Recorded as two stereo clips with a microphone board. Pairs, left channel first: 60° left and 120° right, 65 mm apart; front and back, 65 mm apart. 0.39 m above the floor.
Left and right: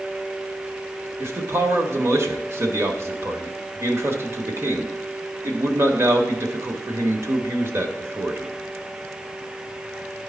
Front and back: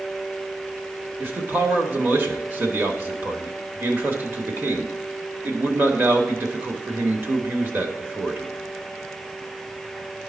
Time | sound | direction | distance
1.2 | a man speaking | 135° right | 1.1 m